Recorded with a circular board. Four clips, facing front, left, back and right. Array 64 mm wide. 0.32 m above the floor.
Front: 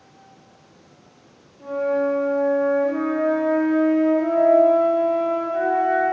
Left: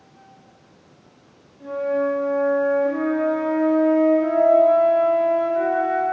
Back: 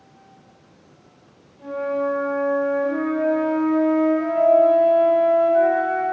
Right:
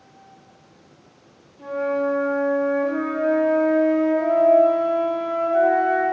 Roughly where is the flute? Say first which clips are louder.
Left 1 dB, front 2 dB; right.